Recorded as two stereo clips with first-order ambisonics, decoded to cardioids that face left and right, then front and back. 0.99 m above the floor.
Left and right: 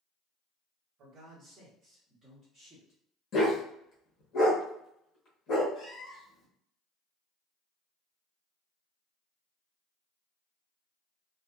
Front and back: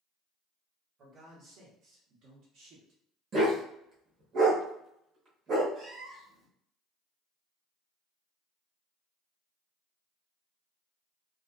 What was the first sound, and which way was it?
A man speaking, 130° right.